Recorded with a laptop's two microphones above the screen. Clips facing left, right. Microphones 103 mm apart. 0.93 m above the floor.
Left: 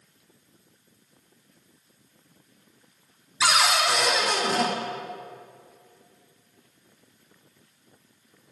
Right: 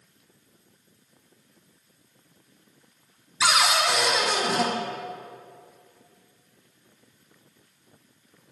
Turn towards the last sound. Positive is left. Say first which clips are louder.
# even
turn(degrees=-5)  # may be behind; listen again after turning